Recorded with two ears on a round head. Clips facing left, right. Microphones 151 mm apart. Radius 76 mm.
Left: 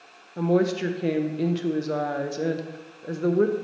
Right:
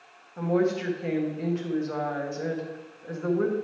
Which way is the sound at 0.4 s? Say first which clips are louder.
Left 3 dB; 40° left (ahead or behind).